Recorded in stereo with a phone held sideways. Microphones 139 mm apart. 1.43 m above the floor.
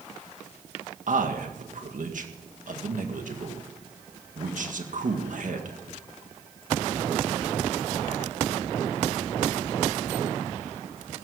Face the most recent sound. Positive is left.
turn(degrees=-70)  # may be behind; listen again after turning